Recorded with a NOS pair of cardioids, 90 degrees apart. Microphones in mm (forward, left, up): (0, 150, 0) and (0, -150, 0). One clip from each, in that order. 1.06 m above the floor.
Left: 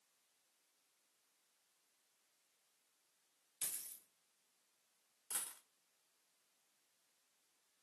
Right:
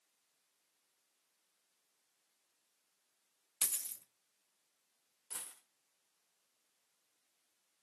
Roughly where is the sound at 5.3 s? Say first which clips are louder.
Left 2 dB; ahead.